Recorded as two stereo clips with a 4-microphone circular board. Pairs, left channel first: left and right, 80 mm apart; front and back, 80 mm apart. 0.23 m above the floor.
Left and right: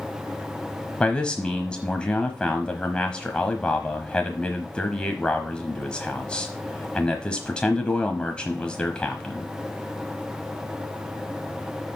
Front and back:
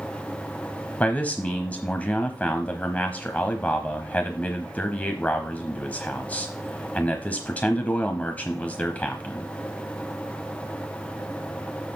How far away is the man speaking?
About 1.0 m.